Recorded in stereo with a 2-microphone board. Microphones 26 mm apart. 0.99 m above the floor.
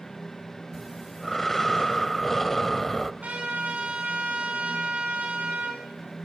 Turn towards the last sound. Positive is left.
turn(degrees=-75)  # may be behind; listen again after turning